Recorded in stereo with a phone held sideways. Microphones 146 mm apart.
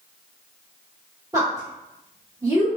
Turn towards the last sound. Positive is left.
turn(degrees=-25)  # may be behind; listen again after turning